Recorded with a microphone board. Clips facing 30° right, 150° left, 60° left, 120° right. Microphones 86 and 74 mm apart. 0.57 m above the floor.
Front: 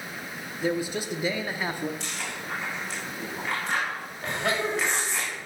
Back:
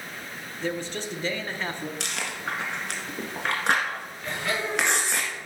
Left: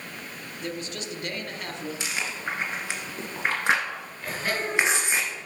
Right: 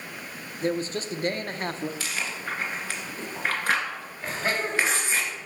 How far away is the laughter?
About 4 m.